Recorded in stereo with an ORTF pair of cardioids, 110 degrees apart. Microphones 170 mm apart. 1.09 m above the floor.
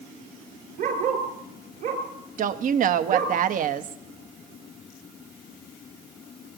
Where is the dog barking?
55° right, 4 m.